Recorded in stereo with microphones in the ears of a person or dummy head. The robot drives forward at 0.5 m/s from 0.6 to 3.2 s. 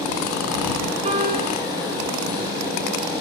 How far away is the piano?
About 5 m.